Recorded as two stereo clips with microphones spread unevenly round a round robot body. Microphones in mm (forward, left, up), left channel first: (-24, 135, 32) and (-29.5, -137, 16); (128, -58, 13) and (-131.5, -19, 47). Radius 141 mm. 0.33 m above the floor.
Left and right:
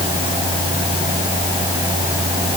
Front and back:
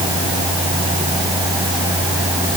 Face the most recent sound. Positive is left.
No sound to turn to.